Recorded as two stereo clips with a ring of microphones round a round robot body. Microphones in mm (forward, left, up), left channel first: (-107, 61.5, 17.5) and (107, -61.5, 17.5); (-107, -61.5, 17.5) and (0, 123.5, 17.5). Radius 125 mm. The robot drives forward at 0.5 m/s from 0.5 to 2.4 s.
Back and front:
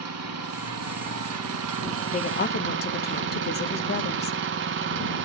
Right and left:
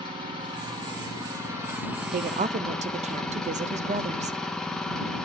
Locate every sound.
0.0 s an engine running: 10° right, 1.5 m; by 5.3 s 35° right, 0.7 m
2.1 s a woman speaking: 95° left, 0.6 m; by 4.4 s 110° left, 0.6 m